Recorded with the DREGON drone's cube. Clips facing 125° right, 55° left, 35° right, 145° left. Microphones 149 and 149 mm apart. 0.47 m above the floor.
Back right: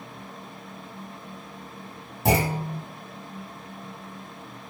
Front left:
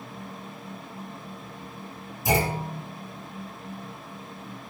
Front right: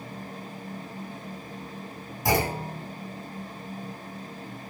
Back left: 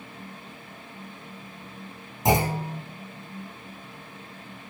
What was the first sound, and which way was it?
A clunk, 150° right.